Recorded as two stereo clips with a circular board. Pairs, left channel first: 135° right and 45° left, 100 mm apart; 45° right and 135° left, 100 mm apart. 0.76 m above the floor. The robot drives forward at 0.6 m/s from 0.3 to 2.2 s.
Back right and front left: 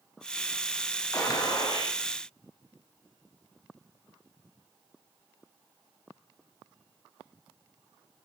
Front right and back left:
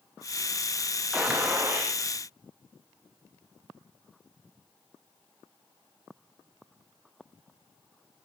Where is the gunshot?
150° right, 0.7 m; by 2.0 s 170° right, 1.0 m.